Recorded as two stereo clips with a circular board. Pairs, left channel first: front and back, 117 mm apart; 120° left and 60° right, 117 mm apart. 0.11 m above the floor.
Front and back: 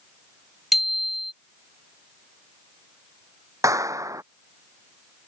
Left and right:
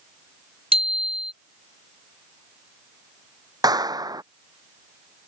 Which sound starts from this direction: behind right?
A clap, at 3.6 s.